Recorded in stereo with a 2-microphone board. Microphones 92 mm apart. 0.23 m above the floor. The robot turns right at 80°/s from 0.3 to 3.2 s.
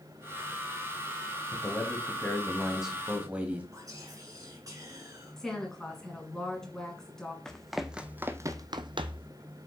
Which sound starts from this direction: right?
Whispering, at 3.7 s.